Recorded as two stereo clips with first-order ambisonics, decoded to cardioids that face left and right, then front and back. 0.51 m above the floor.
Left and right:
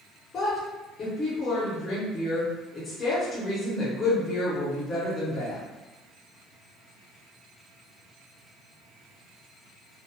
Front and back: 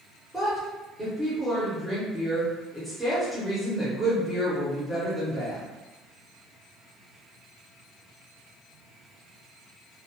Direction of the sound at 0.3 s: 85° left.